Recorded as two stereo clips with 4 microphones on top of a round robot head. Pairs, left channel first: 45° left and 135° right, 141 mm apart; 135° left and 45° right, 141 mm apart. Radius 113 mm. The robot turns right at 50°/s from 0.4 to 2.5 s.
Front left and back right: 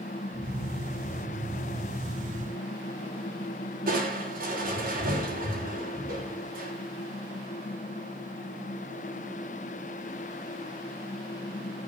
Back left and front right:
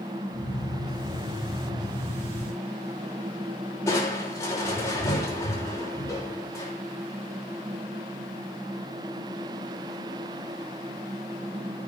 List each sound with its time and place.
3.9 s crushing: 155° right, 6 m